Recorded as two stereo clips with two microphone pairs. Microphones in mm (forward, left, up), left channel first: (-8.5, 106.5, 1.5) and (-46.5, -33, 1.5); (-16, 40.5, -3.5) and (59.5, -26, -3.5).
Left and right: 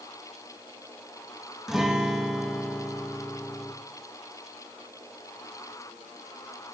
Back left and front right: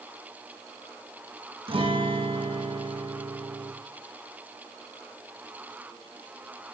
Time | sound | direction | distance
1.7 | a guitar | 15° right | 1.9 m